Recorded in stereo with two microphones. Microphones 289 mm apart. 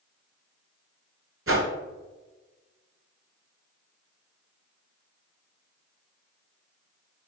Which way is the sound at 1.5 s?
50° right (ahead or behind).